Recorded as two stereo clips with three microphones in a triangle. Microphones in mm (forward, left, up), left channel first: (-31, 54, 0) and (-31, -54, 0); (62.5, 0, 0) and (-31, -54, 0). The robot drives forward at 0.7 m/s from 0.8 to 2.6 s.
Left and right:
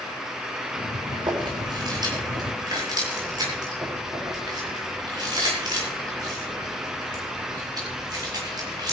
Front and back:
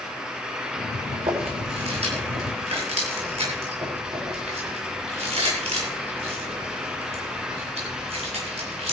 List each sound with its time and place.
1.1 s chewing: 135° right, 7.5 m; by 8.9 s 140° right, 8 m